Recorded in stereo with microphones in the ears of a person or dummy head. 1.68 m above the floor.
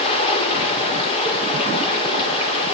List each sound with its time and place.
0.0 s running water: 30° left (ahead or behind), 3.5 m